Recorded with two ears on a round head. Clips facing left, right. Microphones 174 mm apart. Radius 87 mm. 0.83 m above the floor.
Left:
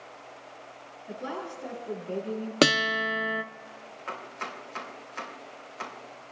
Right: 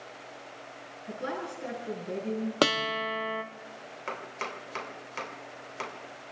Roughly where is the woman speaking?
Right.